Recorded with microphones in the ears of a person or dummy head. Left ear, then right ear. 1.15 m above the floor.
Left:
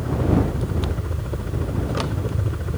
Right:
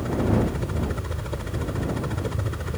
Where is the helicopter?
40° right (ahead or behind).